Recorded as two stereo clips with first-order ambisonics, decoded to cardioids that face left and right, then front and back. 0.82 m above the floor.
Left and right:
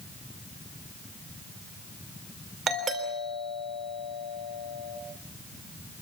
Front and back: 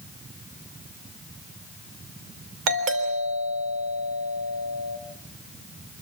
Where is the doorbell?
155° right, 3.5 m.